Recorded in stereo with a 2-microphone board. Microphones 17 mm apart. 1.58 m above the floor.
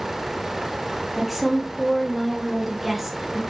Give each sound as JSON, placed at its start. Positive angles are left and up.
{"t": 1.2, "sound": "a woman speaking", "side_deg": -5, "distance_m": 0.5}